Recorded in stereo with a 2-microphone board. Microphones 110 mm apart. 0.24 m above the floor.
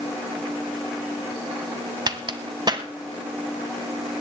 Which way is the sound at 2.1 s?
40° right (ahead or behind).